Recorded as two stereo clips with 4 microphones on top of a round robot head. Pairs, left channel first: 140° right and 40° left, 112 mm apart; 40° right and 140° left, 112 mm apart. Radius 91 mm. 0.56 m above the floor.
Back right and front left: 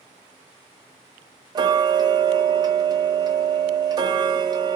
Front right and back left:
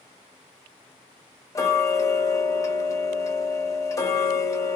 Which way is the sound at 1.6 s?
10° left.